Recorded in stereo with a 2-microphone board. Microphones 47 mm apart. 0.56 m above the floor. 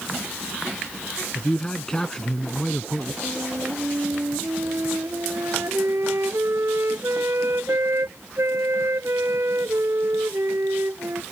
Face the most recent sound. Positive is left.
turn(degrees=-75)  # may be behind; listen again after turning